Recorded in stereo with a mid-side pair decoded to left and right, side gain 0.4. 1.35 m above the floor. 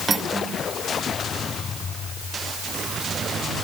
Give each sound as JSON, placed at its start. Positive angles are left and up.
{"t": 0.1, "sound": "cutlery clinking", "azimuth_deg": -40, "distance_m": 3.0}